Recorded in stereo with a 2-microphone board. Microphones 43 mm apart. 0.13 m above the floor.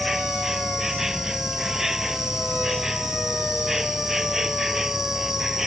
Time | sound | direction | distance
0.0 | an insect | 10° right (ahead or behind) | ?